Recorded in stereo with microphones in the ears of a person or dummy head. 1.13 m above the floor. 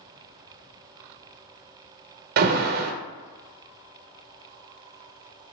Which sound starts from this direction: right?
An alarm, at 2.4 s.